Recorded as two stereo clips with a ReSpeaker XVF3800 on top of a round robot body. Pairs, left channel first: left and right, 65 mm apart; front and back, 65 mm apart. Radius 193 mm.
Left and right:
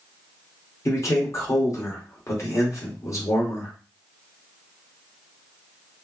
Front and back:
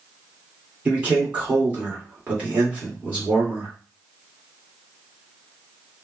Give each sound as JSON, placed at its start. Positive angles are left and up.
{"t": 0.8, "sound": "a man speaking", "azimuth_deg": 115, "distance_m": 1.7}